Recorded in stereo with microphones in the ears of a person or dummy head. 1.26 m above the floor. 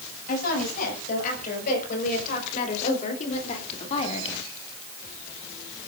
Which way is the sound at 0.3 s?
50° left (ahead or behind).